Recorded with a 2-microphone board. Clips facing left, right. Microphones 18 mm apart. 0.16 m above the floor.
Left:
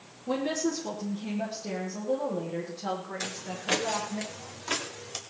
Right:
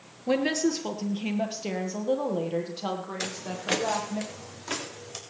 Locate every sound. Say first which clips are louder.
0.3 s a woman speaking: right 4 dB; 65° right (ahead or behind), 3 m; by 4.2 s 70° right (ahead or behind), 6.5 m
3.2 s footsteps: right 2 dB; 20° right (ahead or behind), 2 m; by 5.2 s 10° left (ahead or behind), 4 m